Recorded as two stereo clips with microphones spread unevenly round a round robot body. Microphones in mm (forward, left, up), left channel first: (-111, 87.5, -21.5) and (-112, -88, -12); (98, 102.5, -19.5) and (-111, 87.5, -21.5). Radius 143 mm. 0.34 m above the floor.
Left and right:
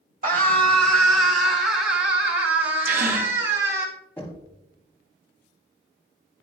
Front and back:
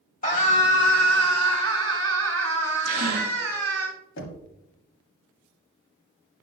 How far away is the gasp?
About 2 m.